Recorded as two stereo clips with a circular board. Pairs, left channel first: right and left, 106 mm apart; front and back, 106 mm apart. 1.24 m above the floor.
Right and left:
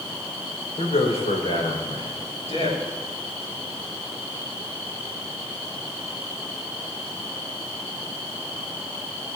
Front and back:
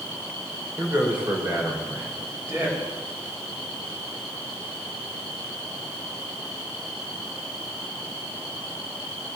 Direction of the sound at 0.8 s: 105° right.